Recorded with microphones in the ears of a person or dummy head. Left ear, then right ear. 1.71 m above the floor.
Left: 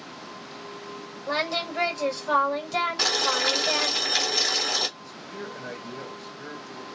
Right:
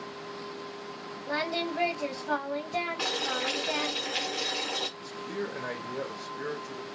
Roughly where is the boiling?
Left.